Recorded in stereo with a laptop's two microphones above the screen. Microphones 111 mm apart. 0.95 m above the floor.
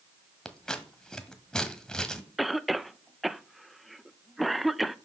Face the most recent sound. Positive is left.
turn(degrees=0)  # may be behind; listen again after turning